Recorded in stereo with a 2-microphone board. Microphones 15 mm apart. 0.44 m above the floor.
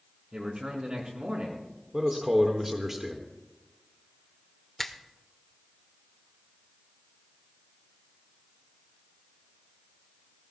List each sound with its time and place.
0.3 s a man speaking: 65° right (ahead or behind), 4.5 m
1.9 s a man speaking: 20° right (ahead or behind), 1.4 m
4.8 s a finger snap: 20° left (ahead or behind), 0.9 m